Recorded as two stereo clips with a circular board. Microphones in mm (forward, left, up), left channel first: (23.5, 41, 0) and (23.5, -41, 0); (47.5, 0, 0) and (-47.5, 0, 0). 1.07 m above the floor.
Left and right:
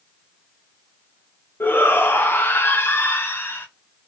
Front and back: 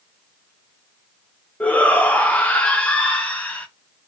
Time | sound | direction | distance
1.6 | a shout | 60° left | 0.7 m